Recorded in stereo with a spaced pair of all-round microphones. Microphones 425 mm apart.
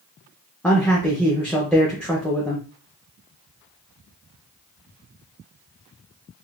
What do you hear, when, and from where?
0.6 s a man speaking: 5° left (ahead or behind), 0.6 m